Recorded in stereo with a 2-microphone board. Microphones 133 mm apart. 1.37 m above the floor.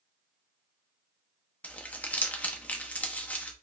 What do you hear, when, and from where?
1.6 s crumpling: 10° left (ahead or behind), 0.8 m